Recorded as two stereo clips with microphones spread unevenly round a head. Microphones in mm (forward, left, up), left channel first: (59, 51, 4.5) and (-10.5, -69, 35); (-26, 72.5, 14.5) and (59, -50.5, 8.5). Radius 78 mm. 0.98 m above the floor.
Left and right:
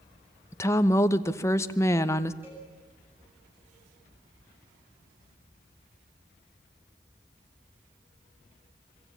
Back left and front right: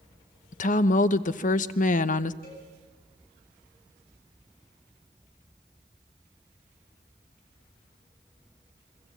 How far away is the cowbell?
About 8.5 m.